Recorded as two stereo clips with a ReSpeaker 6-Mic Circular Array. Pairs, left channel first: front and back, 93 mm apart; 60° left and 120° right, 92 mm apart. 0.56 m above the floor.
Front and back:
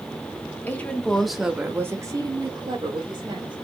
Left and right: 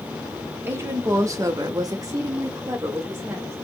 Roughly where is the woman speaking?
Ahead right.